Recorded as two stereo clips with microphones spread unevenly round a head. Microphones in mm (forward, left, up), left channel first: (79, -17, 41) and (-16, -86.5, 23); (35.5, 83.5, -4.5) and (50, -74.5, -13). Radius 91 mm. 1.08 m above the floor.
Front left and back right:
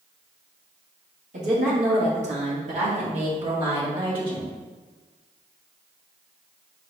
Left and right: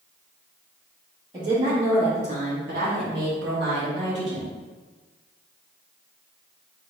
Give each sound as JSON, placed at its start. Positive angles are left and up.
{"t": 1.3, "sound": "a woman speaking", "azimuth_deg": -155, "distance_m": 1.7}